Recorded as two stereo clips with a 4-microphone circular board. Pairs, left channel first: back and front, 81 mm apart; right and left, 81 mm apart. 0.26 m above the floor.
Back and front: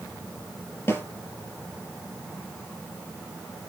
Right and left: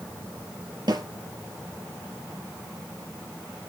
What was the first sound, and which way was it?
A snare drum, 120° left.